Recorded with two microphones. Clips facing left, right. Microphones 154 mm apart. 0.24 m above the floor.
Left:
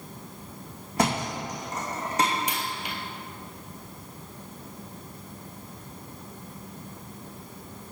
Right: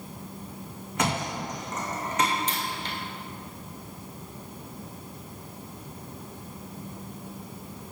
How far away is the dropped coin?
About 0.9 m.